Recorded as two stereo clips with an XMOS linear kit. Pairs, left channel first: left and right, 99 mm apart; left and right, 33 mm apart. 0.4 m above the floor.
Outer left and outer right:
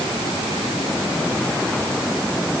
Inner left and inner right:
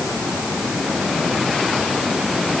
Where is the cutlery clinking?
No cutlery clinking in this recording.